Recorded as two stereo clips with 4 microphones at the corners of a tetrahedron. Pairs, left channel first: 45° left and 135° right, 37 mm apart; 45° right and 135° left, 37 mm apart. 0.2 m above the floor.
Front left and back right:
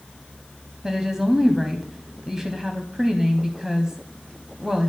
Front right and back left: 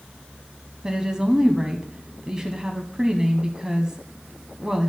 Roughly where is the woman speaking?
Behind.